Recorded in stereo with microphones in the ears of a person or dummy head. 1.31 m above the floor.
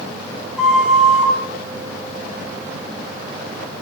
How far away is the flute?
About 1.6 m.